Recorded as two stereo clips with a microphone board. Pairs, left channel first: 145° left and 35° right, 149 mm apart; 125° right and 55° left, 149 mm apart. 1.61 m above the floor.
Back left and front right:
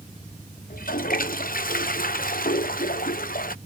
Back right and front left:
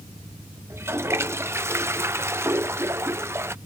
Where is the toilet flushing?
130° left.